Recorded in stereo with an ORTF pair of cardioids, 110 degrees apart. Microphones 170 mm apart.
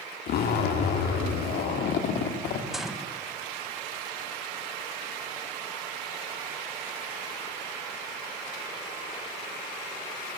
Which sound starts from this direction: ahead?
A gunshot, at 2.7 s.